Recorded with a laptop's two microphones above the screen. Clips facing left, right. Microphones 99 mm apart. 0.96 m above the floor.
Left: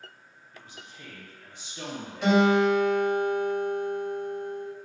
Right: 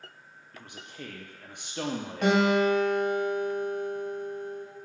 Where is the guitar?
50° right (ahead or behind), 1.3 m.